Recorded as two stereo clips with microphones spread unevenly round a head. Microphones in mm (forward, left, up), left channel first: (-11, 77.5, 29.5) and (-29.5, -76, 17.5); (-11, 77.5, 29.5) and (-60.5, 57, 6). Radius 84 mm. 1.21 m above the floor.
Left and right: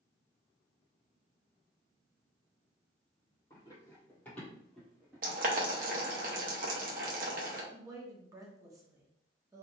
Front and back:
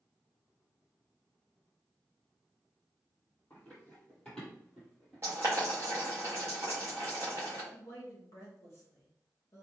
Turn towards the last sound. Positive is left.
turn(degrees=-35)